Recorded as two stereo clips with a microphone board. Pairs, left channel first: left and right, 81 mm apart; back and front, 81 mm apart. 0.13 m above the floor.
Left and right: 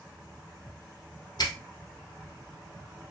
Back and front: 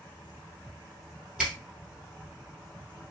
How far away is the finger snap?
About 1.8 m.